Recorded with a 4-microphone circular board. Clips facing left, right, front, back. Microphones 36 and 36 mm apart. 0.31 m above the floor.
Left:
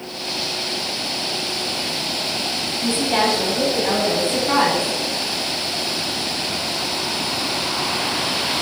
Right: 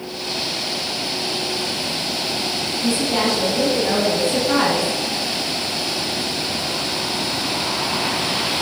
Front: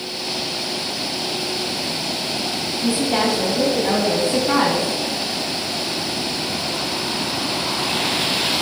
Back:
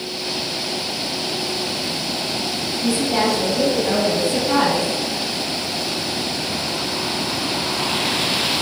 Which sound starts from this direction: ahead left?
A woman speaking, at 2.8 s.